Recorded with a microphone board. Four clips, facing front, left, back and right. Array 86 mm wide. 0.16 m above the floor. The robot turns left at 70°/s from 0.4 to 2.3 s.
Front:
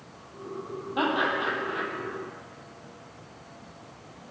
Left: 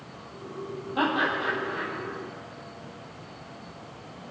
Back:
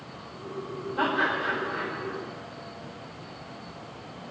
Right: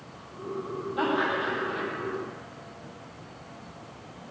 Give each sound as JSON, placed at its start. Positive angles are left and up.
{"t": 1.0, "sound": "laughter", "azimuth_deg": 35, "distance_m": 5.0}